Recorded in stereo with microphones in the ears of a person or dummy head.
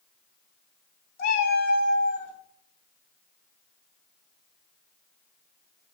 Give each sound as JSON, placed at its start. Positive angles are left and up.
{"t": 1.2, "sound": "a cat meowing", "side_deg": 60, "distance_m": 2.5}